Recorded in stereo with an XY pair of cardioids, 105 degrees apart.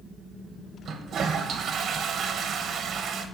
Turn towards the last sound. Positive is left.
turn(degrees=-60)